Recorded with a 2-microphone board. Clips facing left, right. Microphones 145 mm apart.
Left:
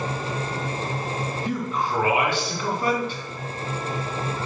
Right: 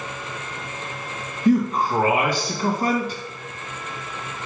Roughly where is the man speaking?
Right.